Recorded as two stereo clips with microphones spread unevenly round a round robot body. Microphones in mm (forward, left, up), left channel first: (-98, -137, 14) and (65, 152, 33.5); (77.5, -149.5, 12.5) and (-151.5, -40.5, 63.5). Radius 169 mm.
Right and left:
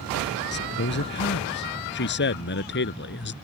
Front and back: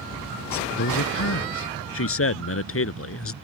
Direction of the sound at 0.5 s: 60° right.